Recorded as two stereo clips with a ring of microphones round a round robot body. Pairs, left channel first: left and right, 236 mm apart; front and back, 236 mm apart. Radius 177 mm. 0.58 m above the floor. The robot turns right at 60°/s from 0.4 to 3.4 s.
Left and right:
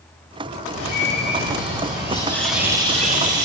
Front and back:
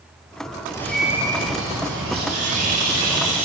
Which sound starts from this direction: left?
A bird, at 0.7 s.